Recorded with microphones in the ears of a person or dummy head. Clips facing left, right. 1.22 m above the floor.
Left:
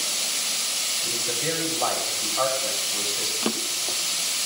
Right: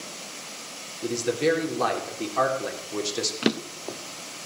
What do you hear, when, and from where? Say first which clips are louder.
1.0 s a man speaking: right 8 dB; 80° right, 4 m
3.4 s a drawer: right 3 dB; 20° right (ahead or behind), 0.9 m